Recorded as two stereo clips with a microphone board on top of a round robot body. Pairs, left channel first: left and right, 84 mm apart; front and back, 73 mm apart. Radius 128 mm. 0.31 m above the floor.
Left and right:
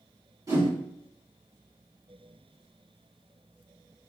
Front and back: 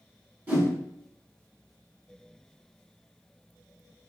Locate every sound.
0.5 s a whoosh: 120° right, 1.5 m